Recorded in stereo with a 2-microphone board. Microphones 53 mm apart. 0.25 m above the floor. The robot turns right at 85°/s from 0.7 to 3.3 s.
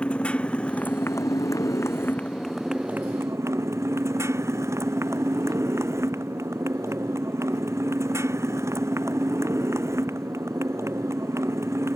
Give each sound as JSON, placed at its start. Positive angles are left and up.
{"t": 0.0, "sound": "a motorcycle", "azimuth_deg": 20}